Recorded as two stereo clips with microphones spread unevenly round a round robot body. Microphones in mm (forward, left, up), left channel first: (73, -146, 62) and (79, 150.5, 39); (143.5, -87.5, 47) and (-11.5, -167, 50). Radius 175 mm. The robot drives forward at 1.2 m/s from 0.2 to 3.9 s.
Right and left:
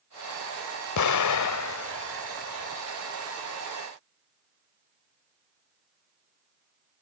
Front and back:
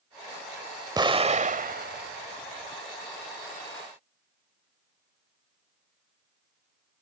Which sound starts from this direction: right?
An explosion, at 1.0 s.